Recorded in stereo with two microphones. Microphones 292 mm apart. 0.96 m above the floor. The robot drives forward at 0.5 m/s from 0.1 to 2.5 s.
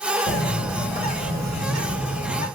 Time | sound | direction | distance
0.3 | a bird | 40° left (ahead or behind) | 1.8 m